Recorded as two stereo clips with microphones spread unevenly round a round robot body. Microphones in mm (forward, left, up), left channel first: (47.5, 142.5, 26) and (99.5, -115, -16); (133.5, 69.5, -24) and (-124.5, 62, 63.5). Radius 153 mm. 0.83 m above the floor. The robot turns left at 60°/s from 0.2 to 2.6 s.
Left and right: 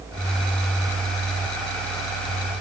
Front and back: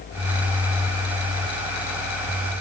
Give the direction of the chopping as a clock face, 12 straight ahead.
I don't hear chopping.